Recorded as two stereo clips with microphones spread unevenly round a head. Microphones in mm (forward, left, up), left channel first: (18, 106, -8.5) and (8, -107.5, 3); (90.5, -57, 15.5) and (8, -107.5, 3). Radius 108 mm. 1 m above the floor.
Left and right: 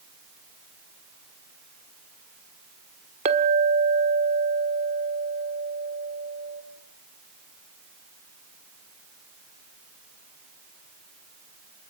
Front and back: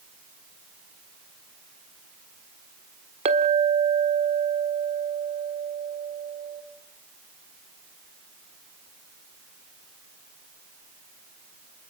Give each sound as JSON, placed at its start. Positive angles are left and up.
{"t": 3.2, "sound": "a clink", "azimuth_deg": -155, "distance_m": 1.3}